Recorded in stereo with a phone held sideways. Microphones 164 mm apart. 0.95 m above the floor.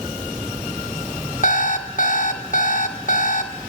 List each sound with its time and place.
1.4 s an alarm clock: 55° left (ahead or behind), 0.8 m